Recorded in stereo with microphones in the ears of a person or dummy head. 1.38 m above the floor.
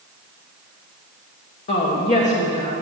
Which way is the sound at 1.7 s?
40° left (ahead or behind).